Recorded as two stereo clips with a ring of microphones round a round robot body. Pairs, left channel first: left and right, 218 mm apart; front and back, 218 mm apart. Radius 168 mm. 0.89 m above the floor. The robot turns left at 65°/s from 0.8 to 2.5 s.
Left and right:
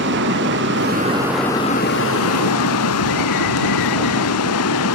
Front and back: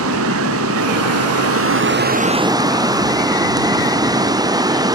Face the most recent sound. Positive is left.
turn(degrees=105)